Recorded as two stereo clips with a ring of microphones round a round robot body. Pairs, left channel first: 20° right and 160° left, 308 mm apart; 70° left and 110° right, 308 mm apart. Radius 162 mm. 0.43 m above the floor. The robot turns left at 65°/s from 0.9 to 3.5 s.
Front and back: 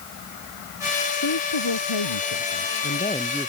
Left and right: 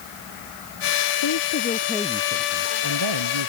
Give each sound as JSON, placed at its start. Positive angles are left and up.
{"t": 1.2, "sound": "a woman speaking", "azimuth_deg": 25}